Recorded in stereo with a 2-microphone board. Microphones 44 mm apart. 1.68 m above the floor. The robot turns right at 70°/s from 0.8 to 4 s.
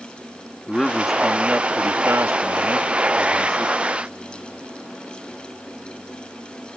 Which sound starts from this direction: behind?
A man speaking, at 0.7 s.